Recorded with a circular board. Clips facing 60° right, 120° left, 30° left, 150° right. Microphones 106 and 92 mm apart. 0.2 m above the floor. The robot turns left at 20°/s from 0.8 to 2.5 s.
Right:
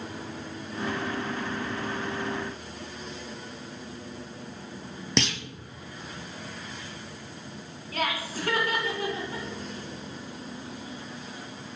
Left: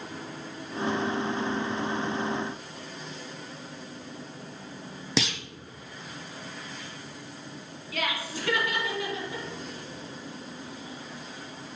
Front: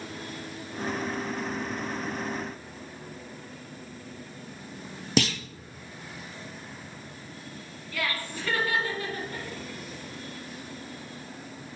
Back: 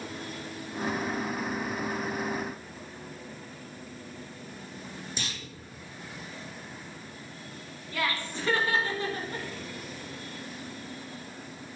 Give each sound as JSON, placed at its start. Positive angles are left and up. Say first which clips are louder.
{"t": 5.2, "sound": "a clunk", "louder": "right 1 dB, front 17 dB", "azimuth_deg": 35, "distance_m": 0.6}
{"t": 7.9, "sound": "laughter", "louder": "right 2 dB, back 1 dB", "azimuth_deg": -90, "distance_m": 2.5}